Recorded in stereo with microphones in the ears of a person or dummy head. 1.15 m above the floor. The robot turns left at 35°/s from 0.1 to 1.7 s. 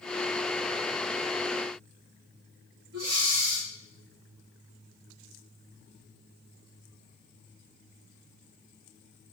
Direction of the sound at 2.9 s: 75° right (ahead or behind).